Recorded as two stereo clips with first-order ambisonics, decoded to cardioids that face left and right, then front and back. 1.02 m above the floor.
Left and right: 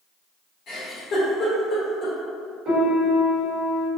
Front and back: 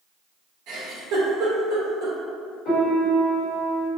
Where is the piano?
45° right, 1.2 m.